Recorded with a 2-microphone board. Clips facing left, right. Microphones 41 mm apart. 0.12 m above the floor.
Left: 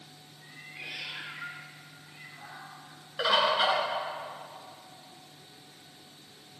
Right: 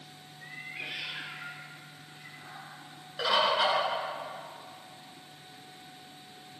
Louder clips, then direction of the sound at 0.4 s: Right 3 dB; 45° right (ahead or behind).